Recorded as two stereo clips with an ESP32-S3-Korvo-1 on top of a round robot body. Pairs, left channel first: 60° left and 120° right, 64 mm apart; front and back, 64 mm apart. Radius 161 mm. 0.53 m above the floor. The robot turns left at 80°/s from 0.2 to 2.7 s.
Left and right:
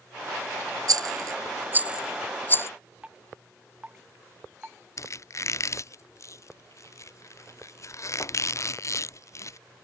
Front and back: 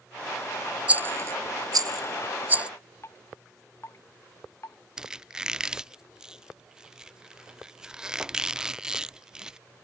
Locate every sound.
0.9 s a rattle: 110° right; by 2.7 s 105° left
3.0 s dripping: 45° right
5.0 s a squeak: 100° left